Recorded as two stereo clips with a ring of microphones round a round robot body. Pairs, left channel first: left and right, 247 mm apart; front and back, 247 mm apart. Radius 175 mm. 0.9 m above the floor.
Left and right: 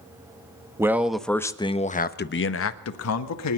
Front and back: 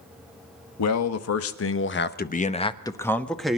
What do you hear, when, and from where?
0.8 s a man speaking: 10° right, 1.5 m; by 3.6 s 90° left, 1.7 m